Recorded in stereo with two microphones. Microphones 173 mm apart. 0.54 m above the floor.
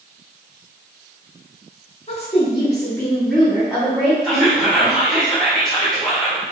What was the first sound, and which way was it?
A woman speaking, 40° left (ahead or behind).